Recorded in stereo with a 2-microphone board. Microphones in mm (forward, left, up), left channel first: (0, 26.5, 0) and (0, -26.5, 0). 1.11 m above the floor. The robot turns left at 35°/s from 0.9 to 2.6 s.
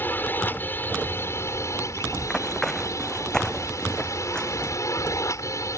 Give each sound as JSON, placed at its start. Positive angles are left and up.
{"t": 0.0, "sound": "a drone", "azimuth_deg": 140}
{"t": 2.2, "sound": "running footsteps", "side_deg": 20}